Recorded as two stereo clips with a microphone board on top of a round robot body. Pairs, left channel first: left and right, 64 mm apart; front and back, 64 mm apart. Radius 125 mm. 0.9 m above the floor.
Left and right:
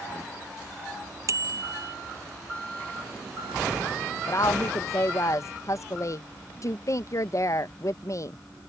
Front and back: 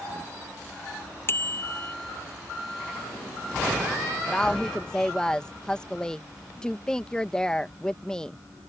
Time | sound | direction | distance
1.3 | a bicycle bell | 55° right | ?
4.3 | a woman speaking | 75° left | ?